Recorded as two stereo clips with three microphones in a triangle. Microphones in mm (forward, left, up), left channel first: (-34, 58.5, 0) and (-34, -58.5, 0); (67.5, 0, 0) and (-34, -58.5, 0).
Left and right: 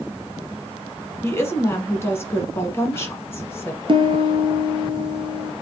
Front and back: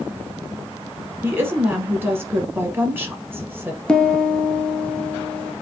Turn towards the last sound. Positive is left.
turn(degrees=-50)